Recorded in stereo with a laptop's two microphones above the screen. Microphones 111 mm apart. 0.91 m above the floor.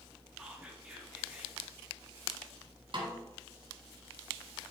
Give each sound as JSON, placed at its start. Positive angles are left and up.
{"t": 0.4, "sound": "whispering", "side_deg": -10, "distance_m": 1.3}
{"t": 2.9, "sound": "a snare drum", "side_deg": -50, "distance_m": 1.5}